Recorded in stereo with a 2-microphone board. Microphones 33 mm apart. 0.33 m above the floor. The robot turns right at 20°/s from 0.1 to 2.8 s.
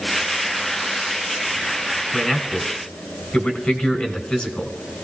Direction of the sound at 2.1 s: 25° left (ahead or behind).